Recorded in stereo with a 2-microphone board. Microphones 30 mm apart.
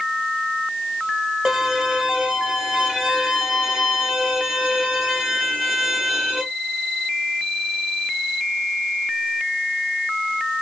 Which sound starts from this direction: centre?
A violin, at 1.4 s.